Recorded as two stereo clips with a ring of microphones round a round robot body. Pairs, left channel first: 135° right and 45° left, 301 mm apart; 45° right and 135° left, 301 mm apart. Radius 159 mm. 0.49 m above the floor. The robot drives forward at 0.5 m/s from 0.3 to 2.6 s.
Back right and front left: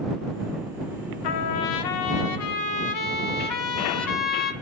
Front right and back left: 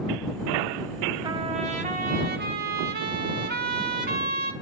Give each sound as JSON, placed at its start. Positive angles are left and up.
{"t": 1.2, "sound": "a trumpet", "azimuth_deg": -145, "distance_m": 0.6}